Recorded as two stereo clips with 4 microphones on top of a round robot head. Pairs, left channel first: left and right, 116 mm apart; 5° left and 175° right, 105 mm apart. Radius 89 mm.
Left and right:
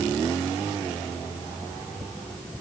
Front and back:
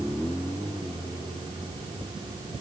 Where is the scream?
I don't hear a scream.